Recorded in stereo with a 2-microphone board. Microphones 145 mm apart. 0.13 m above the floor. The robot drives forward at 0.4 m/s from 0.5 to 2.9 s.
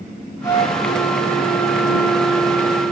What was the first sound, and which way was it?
A flute, 15° left (ahead or behind).